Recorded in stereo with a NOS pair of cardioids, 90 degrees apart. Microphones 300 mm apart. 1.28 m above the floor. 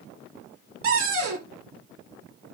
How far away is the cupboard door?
About 1.4 m.